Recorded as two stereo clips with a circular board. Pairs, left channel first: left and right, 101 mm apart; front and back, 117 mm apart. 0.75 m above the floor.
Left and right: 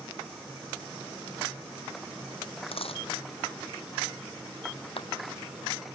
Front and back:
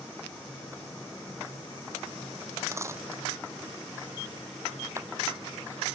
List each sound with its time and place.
2.7 s a dropped coin: 115° left
5.0 s a clap: 115° left